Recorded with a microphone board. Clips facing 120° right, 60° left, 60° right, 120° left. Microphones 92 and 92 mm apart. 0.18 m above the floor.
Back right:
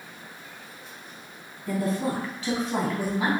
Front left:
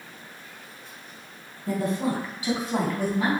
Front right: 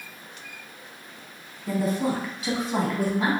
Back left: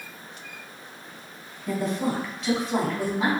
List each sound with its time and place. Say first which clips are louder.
1.7 s a woman speaking: front left 1 dB, front right 1 dB; 20° left, 1.3 m; by 3.3 s 160° right, 1.1 m